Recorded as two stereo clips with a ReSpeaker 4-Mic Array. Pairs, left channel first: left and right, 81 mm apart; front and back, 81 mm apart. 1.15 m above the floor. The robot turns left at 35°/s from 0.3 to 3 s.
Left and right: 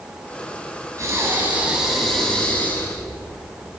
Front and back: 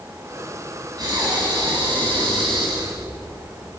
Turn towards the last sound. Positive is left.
turn(degrees=150)